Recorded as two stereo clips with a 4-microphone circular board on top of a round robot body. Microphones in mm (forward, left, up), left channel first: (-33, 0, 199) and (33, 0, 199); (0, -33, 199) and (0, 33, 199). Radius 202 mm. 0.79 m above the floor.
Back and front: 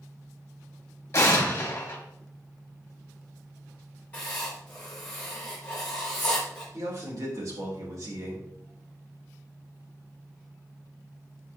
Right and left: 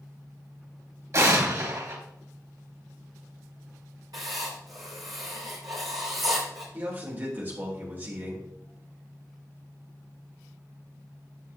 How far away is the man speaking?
About 3 m.